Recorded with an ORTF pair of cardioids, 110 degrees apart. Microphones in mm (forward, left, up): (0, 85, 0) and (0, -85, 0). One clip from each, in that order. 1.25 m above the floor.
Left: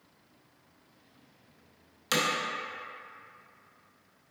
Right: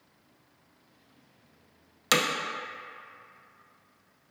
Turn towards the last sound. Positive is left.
turn(degrees=-35)